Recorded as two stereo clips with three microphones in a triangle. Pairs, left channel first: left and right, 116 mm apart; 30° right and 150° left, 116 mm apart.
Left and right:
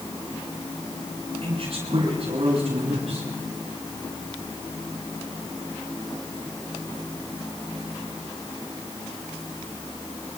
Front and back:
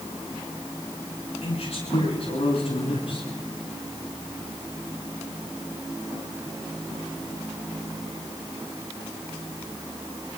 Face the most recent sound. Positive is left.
turn(degrees=-65)